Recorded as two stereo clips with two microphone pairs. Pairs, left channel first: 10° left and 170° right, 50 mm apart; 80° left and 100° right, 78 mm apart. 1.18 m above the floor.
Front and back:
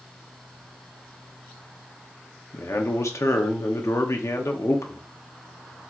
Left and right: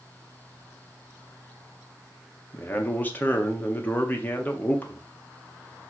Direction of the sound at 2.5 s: 15° left.